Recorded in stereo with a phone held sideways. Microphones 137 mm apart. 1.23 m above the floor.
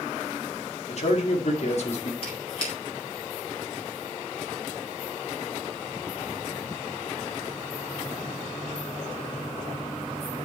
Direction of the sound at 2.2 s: 45° left (ahead or behind).